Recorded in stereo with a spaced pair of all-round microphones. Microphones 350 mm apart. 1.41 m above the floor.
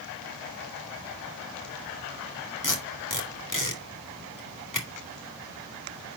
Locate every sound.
2.6 s tape being pulled: 60° left (ahead or behind), 2.0 m